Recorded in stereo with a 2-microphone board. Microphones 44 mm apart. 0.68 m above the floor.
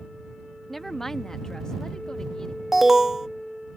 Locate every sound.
0.7 s a woman speaking: 5° left (ahead or behind); by 2.6 s 15° left (ahead or behind)
2.7 s an alarm: 10° right (ahead or behind)